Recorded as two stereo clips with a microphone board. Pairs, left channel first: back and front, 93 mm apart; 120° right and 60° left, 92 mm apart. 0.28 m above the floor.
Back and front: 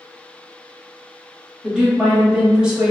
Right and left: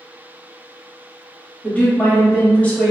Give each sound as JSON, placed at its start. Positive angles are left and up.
{"t": 1.6, "sound": "a woman speaking", "azimuth_deg": -70, "distance_m": 1.0}